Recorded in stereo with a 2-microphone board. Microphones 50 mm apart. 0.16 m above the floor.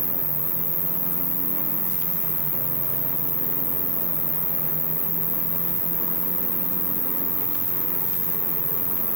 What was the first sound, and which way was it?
An insect, 70° right (ahead or behind).